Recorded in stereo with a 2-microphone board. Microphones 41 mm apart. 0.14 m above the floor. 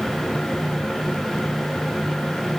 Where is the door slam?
No door slam in this recording.